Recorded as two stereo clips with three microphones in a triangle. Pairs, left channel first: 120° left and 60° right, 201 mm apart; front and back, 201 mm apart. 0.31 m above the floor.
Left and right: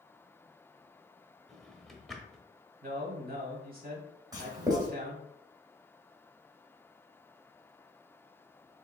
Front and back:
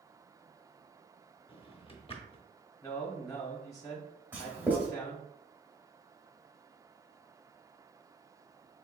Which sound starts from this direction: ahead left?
A drawer, at 1.5 s.